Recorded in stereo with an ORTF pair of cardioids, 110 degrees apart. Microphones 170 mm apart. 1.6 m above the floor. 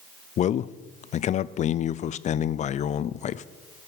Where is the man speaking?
45° left, 0.5 m.